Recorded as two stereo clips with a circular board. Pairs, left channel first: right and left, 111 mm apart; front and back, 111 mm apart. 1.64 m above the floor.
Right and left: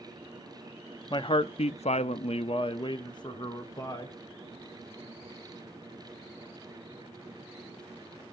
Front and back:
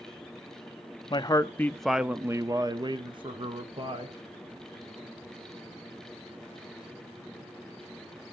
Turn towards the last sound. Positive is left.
turn(degrees=-150)